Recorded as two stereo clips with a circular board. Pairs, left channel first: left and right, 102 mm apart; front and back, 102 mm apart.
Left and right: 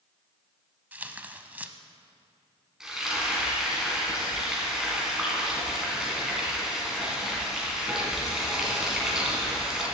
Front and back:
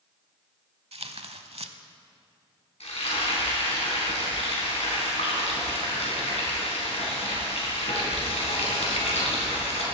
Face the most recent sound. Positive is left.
turn(degrees=-5)